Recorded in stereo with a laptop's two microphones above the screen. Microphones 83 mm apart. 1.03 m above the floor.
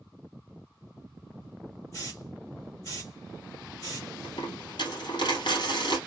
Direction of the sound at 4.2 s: 60° left (ahead or behind).